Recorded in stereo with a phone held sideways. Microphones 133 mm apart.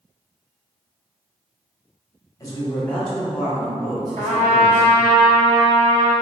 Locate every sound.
2.4 s a man speaking: 30° left (ahead or behind), 0.9 m; by 4.9 s 50° right (ahead or behind), 1.2 m
4.2 s a trumpet: 85° right, 1.3 m